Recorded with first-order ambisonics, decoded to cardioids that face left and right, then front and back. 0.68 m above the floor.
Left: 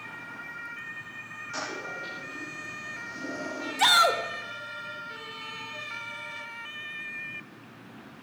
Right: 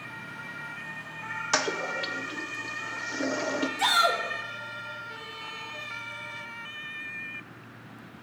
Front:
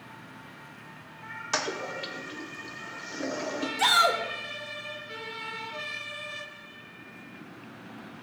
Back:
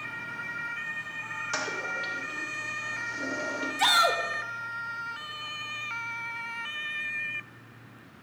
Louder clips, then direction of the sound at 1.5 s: Right 7 dB, front 2 dB; 75° right.